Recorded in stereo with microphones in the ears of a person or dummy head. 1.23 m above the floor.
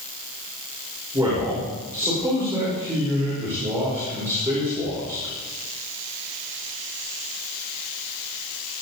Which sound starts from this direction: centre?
A man speaking, at 1.1 s.